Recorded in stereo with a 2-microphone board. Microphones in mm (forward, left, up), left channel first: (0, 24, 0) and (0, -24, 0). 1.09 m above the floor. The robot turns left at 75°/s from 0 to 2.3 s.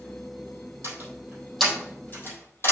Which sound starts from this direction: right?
A door slam, at 0.8 s.